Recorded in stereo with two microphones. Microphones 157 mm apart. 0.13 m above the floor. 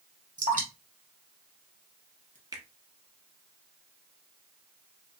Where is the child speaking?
I don't hear a child speaking.